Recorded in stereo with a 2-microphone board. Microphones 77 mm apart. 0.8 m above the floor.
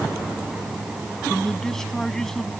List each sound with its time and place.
1.3 s a man speaking: 5° left (ahead or behind)